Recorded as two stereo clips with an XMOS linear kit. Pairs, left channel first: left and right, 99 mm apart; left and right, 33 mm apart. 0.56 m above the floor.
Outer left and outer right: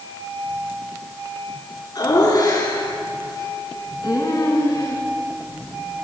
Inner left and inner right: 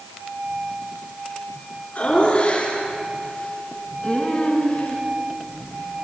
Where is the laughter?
45° left (ahead or behind), 9 m; by 5.0 s 40° left (ahead or behind), 7 m.